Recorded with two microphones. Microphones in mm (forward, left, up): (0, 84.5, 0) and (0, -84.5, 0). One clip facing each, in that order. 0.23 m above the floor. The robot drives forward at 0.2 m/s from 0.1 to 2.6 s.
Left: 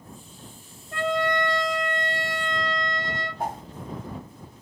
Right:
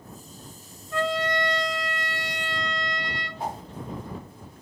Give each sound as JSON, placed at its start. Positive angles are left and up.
{"t": 0.9, "sound": "a trumpet", "side_deg": 55, "distance_m": 1.0}
{"t": 3.4, "sound": "a whoosh", "side_deg": 55, "distance_m": 1.1}